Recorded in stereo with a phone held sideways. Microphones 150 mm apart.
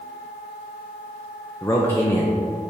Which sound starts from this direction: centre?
A man speaking, at 1.6 s.